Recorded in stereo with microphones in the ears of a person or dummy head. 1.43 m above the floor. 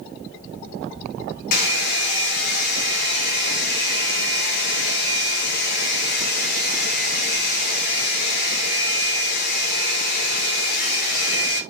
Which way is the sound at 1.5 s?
65° left (ahead or behind).